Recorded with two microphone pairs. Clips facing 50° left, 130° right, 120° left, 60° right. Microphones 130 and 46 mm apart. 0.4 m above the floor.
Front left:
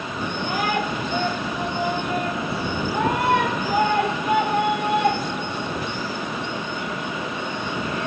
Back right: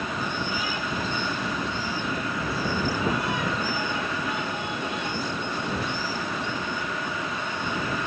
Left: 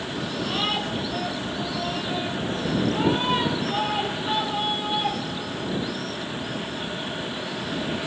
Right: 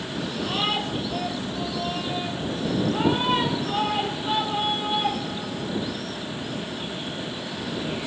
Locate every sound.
0.2 s a shout: 25° left